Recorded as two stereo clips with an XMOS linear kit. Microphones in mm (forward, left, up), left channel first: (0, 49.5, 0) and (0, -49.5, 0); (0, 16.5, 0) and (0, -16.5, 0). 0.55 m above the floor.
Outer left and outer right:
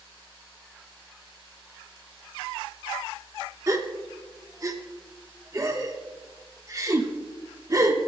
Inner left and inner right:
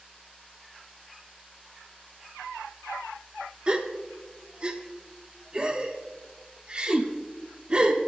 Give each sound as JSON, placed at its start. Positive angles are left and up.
{"t": 3.7, "sound": "a gasp", "side_deg": -35, "distance_m": 1.1}